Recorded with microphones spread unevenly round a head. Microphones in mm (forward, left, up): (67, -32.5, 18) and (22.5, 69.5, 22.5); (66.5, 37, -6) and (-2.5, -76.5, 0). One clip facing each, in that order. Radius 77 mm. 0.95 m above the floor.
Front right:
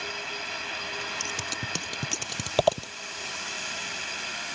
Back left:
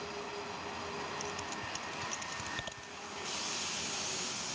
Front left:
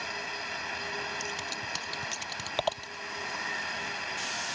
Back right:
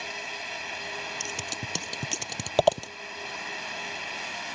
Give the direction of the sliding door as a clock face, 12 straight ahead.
I don't hear a sliding door.